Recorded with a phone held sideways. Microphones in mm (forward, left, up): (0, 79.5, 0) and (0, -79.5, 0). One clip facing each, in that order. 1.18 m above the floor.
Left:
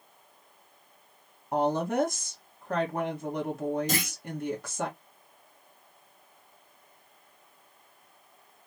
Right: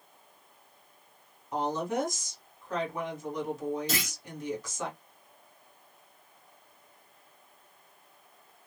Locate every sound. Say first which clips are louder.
1.5 s a woman speaking: left 4 dB; 60° left (ahead or behind), 1.3 m
3.9 s a clunk: left 3 dB; 50° left (ahead or behind), 1.5 m